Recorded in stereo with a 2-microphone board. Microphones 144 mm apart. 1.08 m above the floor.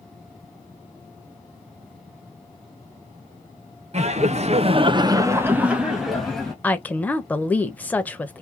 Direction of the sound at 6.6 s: 10° left (ahead or behind).